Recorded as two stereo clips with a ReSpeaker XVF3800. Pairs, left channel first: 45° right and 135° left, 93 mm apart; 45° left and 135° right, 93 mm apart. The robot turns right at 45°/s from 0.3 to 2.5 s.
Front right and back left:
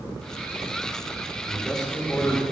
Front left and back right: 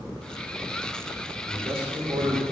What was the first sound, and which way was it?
A man speaking, 145° right.